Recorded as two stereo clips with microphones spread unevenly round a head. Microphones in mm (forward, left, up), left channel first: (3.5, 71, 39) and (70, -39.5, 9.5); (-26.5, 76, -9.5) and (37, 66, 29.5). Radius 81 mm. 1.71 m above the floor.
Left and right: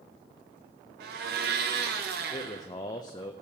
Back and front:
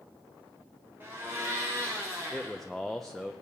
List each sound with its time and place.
1.0 s a blender: 60° right, 0.9 m
2.3 s a man speaking: 70° left, 0.5 m